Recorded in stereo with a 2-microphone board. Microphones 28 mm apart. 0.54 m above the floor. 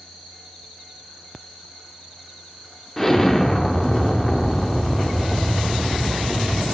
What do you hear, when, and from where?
3.0 s an explosion: 10° left (ahead or behind), 0.7 m